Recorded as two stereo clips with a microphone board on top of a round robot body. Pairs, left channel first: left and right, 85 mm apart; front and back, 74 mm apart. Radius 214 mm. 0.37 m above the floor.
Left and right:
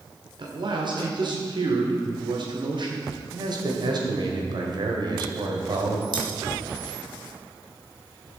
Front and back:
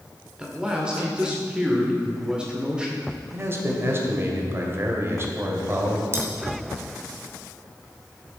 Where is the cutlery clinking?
125° right, 2 m.